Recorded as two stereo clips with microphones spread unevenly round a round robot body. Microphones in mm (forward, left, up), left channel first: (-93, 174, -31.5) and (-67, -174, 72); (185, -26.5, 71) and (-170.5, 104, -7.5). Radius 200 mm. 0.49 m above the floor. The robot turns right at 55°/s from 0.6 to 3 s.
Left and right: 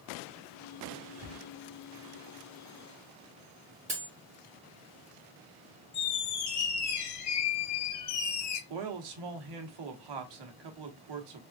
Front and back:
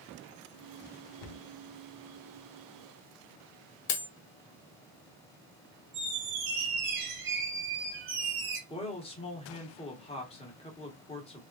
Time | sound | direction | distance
1.2 | a cupboard door | 45° right | 0.7 m
3.9 | cutlery clinking | 5° right | 1.0 m
5.9 | a squeak | 120° left | 2.0 m
8.7 | a man speaking | 105° right | 1.2 m